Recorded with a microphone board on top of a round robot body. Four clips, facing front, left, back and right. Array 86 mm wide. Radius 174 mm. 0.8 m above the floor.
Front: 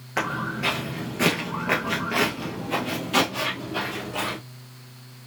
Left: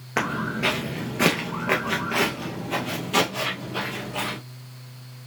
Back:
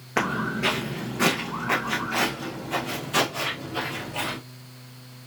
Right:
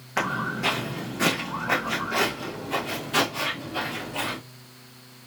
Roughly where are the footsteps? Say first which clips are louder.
Left 1 dB, back 2 dB; behind left.